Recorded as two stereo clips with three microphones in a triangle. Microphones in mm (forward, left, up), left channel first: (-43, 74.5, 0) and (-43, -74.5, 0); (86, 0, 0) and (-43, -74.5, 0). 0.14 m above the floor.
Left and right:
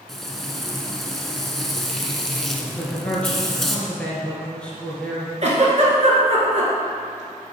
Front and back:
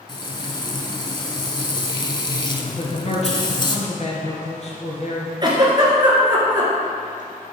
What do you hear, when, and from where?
0.1 s frying: 5° left, 0.9 m
2.8 s a man speaking: 10° left, 2.5 m
5.4 s a giggle: 100° right, 1.8 m